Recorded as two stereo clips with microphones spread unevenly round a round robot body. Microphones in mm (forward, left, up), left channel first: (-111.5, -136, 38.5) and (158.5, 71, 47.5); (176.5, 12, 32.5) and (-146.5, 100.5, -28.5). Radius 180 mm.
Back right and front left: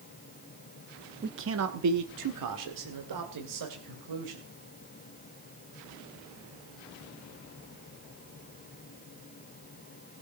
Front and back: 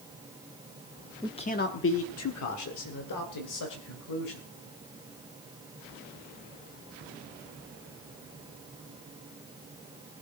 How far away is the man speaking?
About 0.9 m.